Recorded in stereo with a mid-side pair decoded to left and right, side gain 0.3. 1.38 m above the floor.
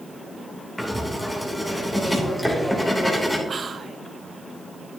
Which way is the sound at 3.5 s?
55° right.